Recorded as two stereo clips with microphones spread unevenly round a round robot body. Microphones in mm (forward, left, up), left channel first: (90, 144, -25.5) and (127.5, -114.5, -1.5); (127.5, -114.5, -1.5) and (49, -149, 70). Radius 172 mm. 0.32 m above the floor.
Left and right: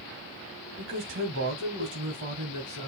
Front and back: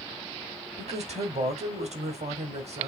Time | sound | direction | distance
0.8 | a man speaking | 135° right | 1.9 m